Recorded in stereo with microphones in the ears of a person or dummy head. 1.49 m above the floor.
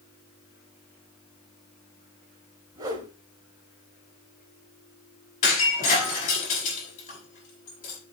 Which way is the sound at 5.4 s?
45° left (ahead or behind).